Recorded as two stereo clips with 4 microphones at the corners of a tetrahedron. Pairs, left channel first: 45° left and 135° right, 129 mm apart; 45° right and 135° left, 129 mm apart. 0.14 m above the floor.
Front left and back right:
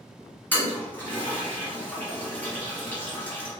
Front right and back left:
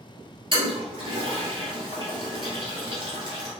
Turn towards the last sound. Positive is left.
turn(degrees=115)